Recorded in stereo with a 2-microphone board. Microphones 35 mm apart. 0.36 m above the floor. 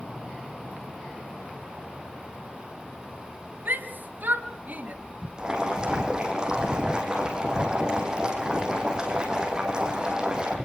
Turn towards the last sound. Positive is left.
turn(degrees=-25)  # may be behind; listen again after turning